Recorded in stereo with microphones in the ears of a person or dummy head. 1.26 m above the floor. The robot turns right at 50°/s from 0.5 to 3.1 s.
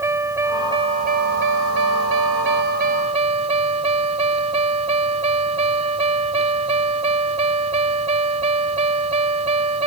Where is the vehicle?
165° right; by 9.9 s 35° right.